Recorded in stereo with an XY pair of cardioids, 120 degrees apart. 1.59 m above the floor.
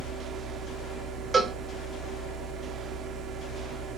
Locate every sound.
0.0 s a fan: 60° right, 0.8 m
1.3 s a cowbell: 30° right, 0.5 m